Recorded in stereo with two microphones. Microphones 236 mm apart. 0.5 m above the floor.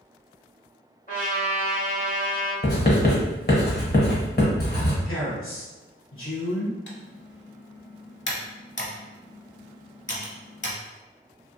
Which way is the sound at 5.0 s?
60° left (ahead or behind).